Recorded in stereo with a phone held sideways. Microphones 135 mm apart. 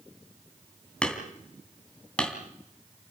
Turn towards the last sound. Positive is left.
turn(degrees=5)  # may be behind; listen again after turning